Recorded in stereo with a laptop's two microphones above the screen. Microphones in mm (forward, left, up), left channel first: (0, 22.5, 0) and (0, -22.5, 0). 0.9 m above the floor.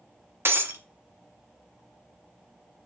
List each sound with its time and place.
0.5 s breaking glass: 60° right (ahead or behind), 0.5 m